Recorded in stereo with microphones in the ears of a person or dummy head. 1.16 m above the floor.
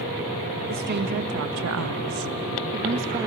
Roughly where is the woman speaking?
Right.